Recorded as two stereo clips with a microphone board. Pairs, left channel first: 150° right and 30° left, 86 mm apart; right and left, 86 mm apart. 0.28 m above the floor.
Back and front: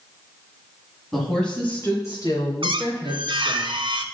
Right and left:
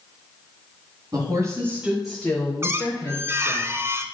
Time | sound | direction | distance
1.1 | a woman speaking | 125° left | 2.0 m
2.6 | a squeak | 30° left | 0.8 m